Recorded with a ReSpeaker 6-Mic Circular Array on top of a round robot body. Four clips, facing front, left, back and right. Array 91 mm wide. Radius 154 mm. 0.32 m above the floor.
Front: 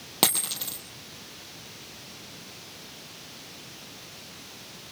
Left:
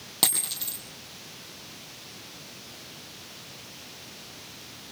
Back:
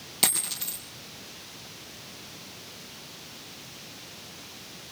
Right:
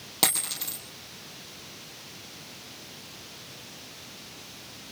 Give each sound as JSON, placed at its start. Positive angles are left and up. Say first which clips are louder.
{"t": 0.2, "sound": "a dropped coin", "louder": "right 3 dB, front 5 dB", "azimuth_deg": -5, "distance_m": 2.0}